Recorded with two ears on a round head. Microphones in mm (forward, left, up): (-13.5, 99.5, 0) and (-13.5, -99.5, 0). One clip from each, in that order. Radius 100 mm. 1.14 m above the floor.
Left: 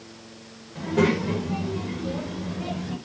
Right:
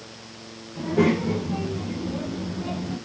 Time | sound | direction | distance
0.8 | a child speaking | 35° left (ahead or behind) | 3 m